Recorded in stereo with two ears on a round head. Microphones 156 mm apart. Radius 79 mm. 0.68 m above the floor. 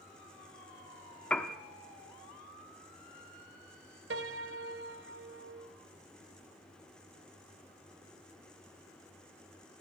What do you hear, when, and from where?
1.3 s a piano: 5° left (ahead or behind), 0.8 m
4.1 s a piano: 65° right (ahead or behind), 1.0 m